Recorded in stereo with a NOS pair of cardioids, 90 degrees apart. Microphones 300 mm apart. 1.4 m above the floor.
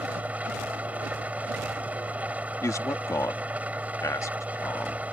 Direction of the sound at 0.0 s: 5° right.